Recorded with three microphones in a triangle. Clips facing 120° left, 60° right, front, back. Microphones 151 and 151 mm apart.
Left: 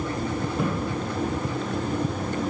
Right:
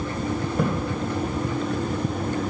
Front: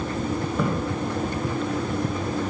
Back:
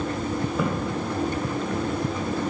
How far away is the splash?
About 2.5 m.